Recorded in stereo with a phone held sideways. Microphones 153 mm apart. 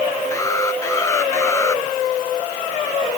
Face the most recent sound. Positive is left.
turn(degrees=20)  # may be behind; listen again after turning